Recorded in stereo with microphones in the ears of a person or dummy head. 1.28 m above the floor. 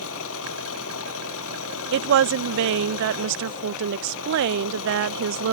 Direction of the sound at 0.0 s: 75° left (ahead or behind).